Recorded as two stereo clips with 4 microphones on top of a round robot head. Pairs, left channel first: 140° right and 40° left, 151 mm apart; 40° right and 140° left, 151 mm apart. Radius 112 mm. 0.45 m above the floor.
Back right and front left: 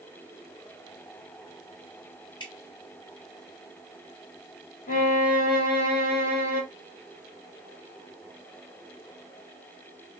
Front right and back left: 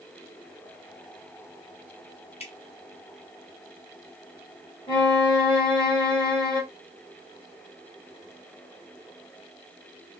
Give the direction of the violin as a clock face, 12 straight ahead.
3 o'clock.